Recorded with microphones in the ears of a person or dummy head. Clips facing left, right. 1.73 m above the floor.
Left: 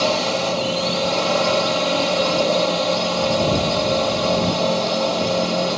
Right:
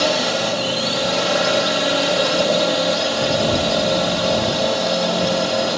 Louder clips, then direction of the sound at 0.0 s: Right 1 dB; 15° right (ahead or behind).